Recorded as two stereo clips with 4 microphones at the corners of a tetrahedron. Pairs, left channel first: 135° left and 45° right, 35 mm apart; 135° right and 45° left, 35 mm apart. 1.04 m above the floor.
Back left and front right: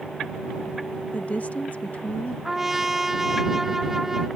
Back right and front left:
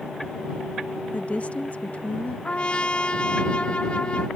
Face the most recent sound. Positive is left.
turn(degrees=-115)